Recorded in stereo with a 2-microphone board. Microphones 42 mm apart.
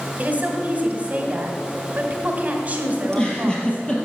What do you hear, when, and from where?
0.2 s a woman speaking: 35° right (ahead or behind), 2 m
3.0 s a giggle: 20° left (ahead or behind), 2.5 m